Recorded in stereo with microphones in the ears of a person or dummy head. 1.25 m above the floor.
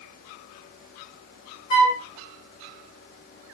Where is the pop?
No pop in this recording.